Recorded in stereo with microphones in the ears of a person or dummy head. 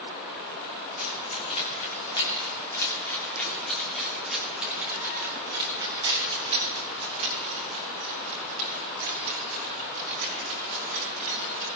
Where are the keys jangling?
40° left (ahead or behind), 2.5 m; by 11.7 s 55° right (ahead or behind), 4.5 m.